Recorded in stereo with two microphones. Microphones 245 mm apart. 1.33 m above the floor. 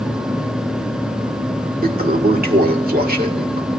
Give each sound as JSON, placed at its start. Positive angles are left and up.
{"t": 1.8, "sound": "a toilet flushing", "side_deg": -35, "distance_m": 1.9}